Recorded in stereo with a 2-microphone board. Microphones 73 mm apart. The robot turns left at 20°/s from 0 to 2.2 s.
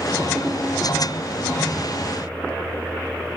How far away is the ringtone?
About 0.5 m.